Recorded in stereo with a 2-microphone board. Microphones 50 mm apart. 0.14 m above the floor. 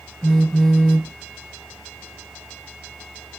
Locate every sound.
0.2 s a phone buzzing: 5° left (ahead or behind), 1.6 m